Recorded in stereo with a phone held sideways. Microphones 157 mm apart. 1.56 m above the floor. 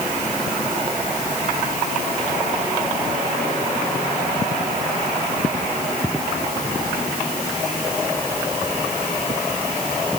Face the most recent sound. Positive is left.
No sound to turn to.